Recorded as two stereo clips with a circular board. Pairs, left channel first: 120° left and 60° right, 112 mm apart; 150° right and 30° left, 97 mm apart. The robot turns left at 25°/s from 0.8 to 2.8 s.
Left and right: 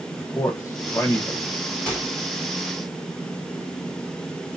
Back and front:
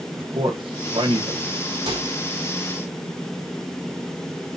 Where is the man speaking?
60° left, 1.4 m; by 1.8 s 35° left, 1.4 m.